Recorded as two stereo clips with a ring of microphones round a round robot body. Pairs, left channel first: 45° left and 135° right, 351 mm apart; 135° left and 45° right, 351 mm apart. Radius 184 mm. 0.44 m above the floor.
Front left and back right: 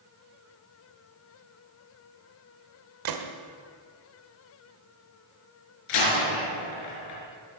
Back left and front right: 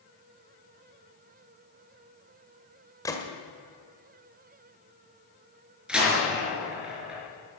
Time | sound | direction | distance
3.0 | a gunshot | 145° right | 1.8 m
5.9 | a door slam | 45° left | 5 m